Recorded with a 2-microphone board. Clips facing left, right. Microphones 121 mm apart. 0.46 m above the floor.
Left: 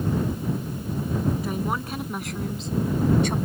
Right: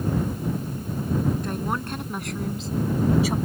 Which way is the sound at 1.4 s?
5° left (ahead or behind).